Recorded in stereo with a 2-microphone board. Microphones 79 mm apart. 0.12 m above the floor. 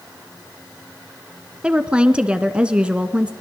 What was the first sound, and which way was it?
A woman speaking, 15° right (ahead or behind).